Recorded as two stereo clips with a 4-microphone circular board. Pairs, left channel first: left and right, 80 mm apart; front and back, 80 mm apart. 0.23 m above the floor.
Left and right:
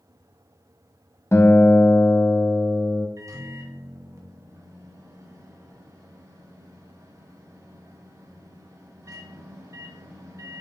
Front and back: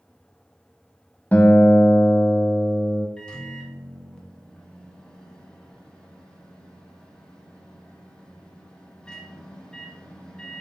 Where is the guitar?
60° left, 0.7 m.